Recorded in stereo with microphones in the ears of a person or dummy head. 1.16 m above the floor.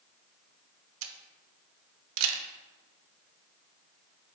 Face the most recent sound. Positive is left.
turn(degrees=-80)